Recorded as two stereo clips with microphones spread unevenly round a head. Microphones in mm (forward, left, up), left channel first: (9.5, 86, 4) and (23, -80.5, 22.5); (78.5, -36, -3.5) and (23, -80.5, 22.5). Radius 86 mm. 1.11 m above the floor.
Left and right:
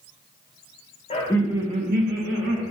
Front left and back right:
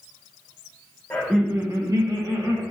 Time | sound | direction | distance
1.1 | laughter | 80° left | 0.7 m